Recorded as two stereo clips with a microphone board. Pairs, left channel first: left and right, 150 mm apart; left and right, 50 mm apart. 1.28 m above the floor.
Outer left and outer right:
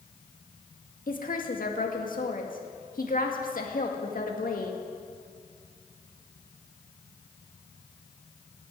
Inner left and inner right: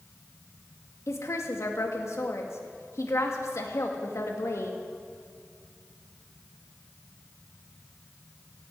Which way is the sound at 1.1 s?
70° left (ahead or behind).